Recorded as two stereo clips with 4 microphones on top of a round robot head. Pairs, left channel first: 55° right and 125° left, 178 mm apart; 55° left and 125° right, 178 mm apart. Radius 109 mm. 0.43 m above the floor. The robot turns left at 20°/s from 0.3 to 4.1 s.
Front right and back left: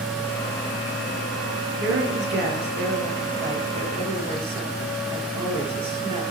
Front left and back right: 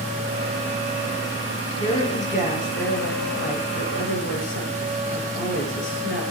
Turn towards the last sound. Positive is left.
turn(degrees=65)